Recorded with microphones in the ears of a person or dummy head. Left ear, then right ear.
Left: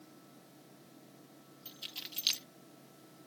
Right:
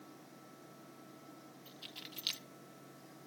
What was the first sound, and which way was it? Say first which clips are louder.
Keys jangling: left 6 dB; 5° left (ahead or behind).